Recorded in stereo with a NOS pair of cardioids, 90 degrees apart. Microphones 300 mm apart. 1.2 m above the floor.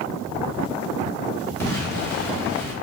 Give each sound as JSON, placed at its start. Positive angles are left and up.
{"t": 1.6, "sound": "an explosion", "azimuth_deg": 10, "distance_m": 1.4}